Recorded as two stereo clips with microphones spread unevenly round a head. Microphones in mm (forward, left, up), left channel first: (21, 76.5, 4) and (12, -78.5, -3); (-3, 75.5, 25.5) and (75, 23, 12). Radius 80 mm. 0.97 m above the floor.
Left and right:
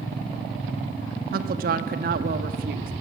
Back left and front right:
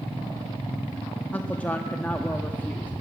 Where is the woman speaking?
130° right, 1.3 m.